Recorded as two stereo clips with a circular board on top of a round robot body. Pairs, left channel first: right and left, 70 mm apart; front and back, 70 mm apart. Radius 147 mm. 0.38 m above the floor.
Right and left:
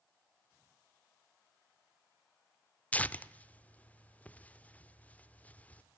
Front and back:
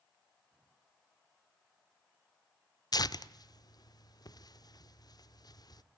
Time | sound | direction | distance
2.9 | tearing paper | 20° right | 0.7 m